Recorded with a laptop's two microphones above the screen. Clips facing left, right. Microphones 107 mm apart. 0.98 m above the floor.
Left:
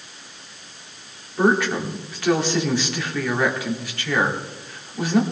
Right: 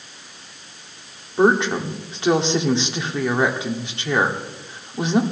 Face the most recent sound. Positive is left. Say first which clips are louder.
# right 2 dB
turn(degrees=-25)  # may be behind; listen again after turning